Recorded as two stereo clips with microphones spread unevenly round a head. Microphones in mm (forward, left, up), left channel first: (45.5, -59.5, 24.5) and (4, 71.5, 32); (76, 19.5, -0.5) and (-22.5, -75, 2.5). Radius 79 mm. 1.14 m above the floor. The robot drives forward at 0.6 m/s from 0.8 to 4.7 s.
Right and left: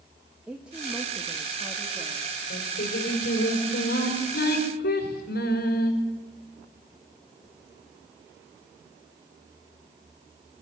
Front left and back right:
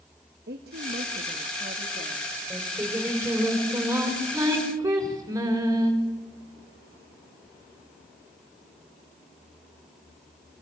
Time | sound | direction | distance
0.5 | a woman speaking | 170° right | 1.4 m
2.5 | singing | 55° right | 6 m